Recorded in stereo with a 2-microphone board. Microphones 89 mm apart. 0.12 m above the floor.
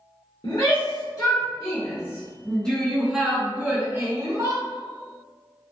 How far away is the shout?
About 1.8 m.